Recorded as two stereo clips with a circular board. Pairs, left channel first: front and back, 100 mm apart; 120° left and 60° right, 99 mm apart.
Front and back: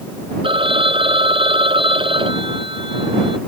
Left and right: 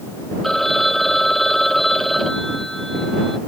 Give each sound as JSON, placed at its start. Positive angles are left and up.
{"t": 0.4, "sound": "a phone ringing", "azimuth_deg": -155}